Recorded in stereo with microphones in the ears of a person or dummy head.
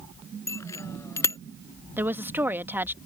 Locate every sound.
0.5 s a bicycle bell: 15° left (ahead or behind)
2.0 s a woman speaking: 10° right (ahead or behind)